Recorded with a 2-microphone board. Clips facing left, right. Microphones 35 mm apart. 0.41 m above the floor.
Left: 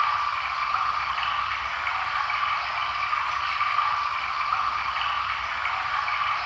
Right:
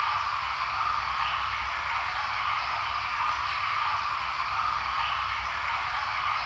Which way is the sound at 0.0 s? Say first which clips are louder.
Left 3 dB; 75° left (ahead or behind).